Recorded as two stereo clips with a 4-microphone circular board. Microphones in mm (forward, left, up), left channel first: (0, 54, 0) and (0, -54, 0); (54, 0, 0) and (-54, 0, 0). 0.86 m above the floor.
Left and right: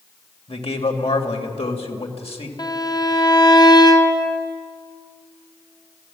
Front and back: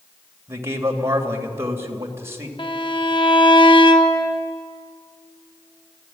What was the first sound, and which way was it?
A man speaking, 115° left.